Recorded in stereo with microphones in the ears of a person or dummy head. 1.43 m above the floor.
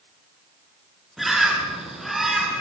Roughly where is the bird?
Centre.